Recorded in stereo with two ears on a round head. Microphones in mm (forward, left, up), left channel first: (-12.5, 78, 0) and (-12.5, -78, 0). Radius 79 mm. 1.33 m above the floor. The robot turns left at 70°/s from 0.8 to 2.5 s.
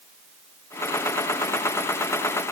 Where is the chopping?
No chopping in this recording.